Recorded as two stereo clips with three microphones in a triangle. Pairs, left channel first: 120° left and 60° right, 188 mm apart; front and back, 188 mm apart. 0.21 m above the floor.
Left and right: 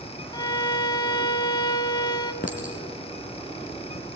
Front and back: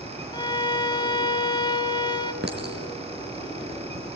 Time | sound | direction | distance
0.3 | a violin | 60° left | 0.8 m
2.4 | a clink | 160° left | 2.5 m